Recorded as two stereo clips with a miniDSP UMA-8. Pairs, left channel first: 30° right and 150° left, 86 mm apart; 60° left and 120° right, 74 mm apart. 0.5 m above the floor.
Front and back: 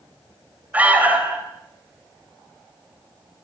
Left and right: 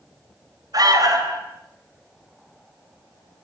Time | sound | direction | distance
0.7 | an alarm | 140° right | 4 m